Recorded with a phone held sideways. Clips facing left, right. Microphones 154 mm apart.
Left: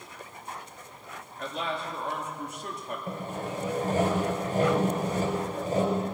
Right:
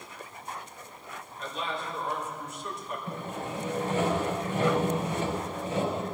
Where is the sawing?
45° left (ahead or behind), 4 m.